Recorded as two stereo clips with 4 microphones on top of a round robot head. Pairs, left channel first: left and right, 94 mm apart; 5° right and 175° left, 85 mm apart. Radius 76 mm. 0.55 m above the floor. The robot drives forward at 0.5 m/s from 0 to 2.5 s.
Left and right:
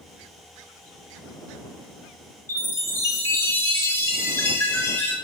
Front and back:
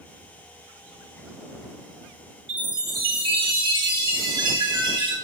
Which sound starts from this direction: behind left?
A chime, at 2.5 s.